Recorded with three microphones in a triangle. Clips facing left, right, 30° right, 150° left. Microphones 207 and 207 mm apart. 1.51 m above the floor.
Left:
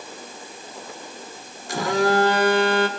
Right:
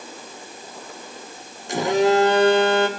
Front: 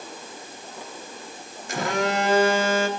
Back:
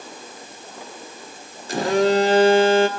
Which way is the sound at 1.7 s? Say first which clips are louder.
Right 3 dB, back 7 dB; 155° right.